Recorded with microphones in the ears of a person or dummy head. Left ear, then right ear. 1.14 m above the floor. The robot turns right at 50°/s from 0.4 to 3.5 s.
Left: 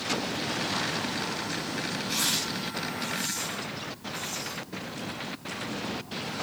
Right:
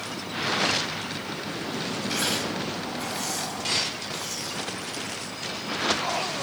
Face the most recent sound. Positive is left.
turn(degrees=-80)